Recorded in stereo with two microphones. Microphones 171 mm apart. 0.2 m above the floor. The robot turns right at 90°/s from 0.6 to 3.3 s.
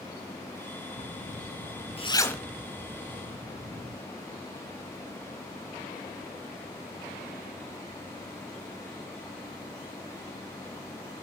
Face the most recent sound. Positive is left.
turn(degrees=-55)  # may be behind; listen again after turning